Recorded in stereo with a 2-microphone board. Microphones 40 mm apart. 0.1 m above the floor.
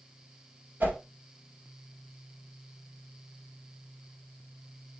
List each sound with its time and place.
0.8 s a whoosh: 50° right (ahead or behind), 2.5 m